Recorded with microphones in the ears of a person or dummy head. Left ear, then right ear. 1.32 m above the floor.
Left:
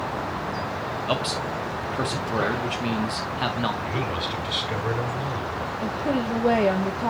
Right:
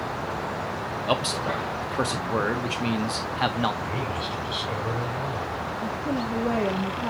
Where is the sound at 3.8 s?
15° left (ahead or behind), 4.5 m.